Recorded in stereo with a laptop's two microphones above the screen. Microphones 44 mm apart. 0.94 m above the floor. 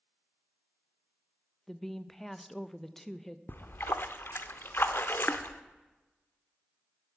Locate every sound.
1.7 s a woman speaking: 10° left (ahead or behind), 0.5 m
3.5 s a splash: 55° left (ahead or behind), 0.8 m